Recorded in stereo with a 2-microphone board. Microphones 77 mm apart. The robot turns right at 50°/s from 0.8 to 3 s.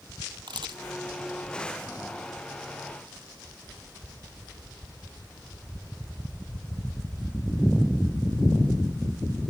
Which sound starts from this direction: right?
A camera shutter, at 0.5 s.